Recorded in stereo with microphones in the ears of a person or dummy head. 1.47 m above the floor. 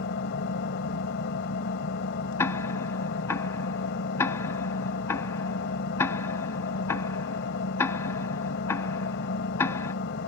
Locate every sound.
0.0 s an engine running: 60° left (ahead or behind)
2.4 s ticking: 10° left (ahead or behind)